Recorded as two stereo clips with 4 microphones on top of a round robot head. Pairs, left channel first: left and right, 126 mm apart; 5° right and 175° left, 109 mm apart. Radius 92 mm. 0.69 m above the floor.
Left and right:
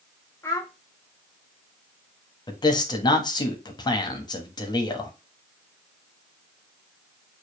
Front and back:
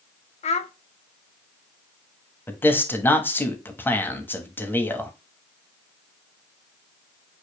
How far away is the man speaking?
About 1.1 m.